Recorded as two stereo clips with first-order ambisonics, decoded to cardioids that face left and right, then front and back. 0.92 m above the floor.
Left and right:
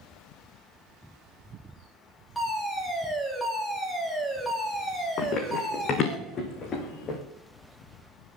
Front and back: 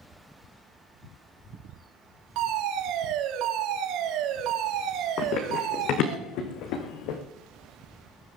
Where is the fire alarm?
Straight behind, 3 m.